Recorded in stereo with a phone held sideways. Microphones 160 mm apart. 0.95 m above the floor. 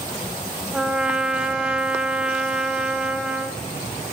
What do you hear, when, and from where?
0.7 s a trumpet: 5° right (ahead or behind), 0.8 m